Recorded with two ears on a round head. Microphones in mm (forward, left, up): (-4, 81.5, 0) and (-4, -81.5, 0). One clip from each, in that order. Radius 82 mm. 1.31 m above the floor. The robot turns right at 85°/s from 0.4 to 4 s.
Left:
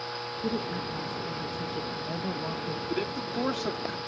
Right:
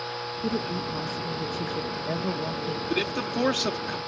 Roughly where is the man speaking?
Behind right.